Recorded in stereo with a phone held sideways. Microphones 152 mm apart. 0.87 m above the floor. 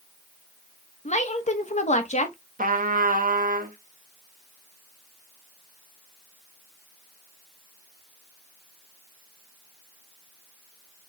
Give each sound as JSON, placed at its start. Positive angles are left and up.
{"t": 1.1, "sound": "a woman speaking", "side_deg": 50, "distance_m": 0.9}
{"t": 2.6, "sound": "a trumpet", "side_deg": -65, "distance_m": 0.9}